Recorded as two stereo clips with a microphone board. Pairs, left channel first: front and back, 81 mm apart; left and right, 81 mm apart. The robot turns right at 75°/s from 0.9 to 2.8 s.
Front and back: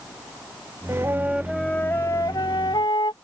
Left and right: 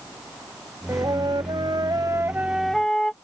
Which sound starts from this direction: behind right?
A flute, at 0.9 s.